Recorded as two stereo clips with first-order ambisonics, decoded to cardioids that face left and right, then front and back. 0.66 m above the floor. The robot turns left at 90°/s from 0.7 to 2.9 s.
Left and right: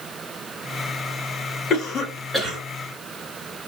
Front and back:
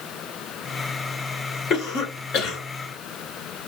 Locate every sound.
1.7 s a cough: 55° left, 1.7 m; by 2.6 s 30° right, 1.7 m